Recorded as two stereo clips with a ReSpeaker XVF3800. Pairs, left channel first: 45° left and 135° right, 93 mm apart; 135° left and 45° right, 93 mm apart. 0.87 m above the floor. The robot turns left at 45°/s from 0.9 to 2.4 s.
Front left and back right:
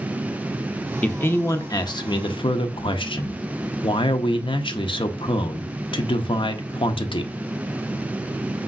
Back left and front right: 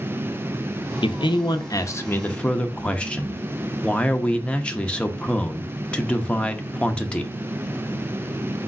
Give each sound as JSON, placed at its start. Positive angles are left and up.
{"t": 1.0, "sound": "a man speaking", "azimuth_deg": 120, "distance_m": 0.6}